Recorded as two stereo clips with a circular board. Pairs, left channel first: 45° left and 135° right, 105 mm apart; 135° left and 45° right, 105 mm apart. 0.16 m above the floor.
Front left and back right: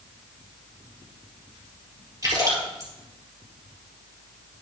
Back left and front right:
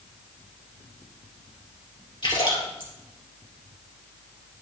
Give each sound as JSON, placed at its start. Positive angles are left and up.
{"t": 2.2, "sound": "a splash", "azimuth_deg": 170, "distance_m": 3.0}